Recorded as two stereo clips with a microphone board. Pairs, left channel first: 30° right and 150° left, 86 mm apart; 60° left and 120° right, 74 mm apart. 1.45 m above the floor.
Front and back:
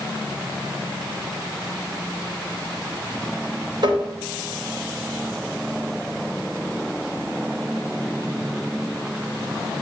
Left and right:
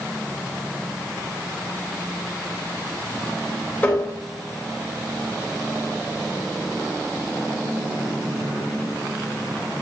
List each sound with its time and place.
3.8 s tapping: 130° left, 3 m